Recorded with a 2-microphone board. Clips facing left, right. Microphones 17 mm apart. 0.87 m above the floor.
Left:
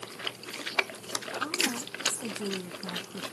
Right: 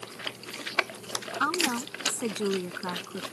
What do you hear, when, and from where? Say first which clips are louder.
1.4 s a woman speaking: right 5 dB; 85° right; by 3.2 s 70° right (ahead or behind)